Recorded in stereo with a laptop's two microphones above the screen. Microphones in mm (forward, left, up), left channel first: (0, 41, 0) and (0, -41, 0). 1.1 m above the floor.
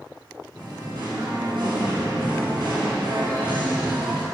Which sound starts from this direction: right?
Singing, at 0.5 s.